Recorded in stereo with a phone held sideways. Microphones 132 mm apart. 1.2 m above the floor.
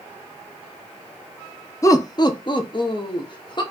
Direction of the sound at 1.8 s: 25° left (ahead or behind).